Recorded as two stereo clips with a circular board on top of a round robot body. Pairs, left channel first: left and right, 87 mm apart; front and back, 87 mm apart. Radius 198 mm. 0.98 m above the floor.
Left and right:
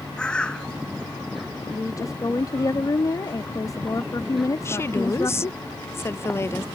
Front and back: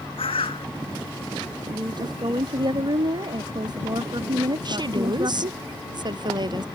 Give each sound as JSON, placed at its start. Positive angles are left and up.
{"t": 0.2, "sound": "a bird", "azimuth_deg": 10}
{"t": 1.7, "sound": "a woman speaking", "azimuth_deg": 140}
{"t": 4.7, "sound": "a woman speaking", "azimuth_deg": 150}